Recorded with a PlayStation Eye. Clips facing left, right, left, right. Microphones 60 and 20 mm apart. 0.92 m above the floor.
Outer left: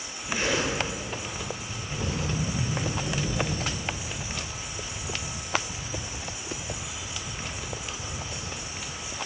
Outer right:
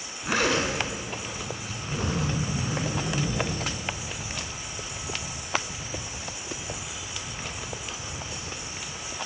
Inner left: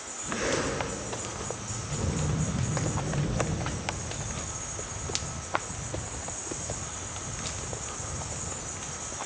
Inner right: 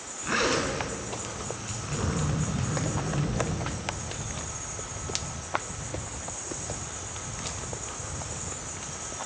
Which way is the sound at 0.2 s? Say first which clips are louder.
Outer right 3 dB, inner right 3 dB; 70° right (ahead or behind).